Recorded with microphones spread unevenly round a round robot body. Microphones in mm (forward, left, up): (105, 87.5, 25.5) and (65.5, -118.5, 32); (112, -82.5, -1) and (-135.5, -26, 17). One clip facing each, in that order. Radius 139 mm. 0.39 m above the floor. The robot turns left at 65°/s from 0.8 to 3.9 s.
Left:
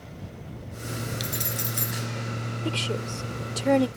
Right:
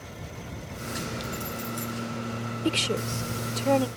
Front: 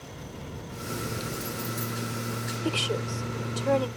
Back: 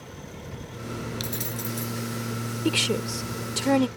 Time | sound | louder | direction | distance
1.2 | keys jangling | even, back 1 dB | 120° left | ?
2.6 | a woman speaking | right 3 dB, back 4 dB | 150° right | ?